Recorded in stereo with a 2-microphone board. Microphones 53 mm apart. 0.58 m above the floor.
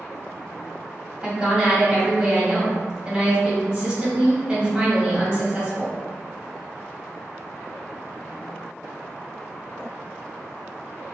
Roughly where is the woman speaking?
Right.